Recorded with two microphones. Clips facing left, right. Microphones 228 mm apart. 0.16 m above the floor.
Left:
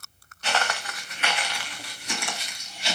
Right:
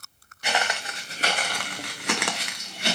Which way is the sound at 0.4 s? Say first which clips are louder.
Even; 15° right (ahead or behind).